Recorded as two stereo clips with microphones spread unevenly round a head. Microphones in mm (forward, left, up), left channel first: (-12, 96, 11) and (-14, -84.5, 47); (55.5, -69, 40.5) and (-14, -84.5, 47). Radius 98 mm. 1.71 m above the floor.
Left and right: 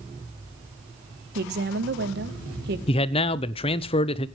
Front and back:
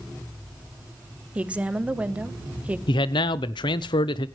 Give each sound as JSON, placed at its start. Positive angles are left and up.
{"t": 1.4, "sound": "a woman speaking", "azimuth_deg": -100, "distance_m": 1.2}
{"t": 2.9, "sound": "a man speaking", "azimuth_deg": 25, "distance_m": 0.6}